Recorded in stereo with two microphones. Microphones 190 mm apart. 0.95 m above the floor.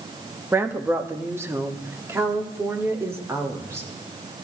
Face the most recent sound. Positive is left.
turn(degrees=-15)  # may be behind; listen again after turning